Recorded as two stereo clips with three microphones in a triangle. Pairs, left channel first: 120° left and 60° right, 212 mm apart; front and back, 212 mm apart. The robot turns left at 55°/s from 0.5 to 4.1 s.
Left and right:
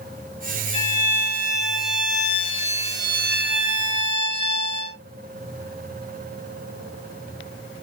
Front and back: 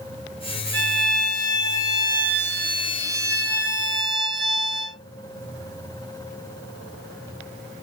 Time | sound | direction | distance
0.7 | a violin | 175° left | 3.5 m